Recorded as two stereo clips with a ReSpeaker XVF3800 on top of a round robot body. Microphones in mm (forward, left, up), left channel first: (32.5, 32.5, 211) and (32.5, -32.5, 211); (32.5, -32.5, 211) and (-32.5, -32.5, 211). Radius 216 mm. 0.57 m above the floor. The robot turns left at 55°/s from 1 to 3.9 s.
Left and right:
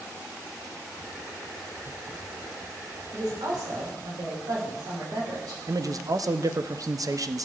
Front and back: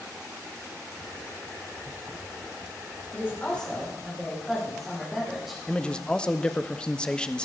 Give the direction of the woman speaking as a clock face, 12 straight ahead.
2 o'clock.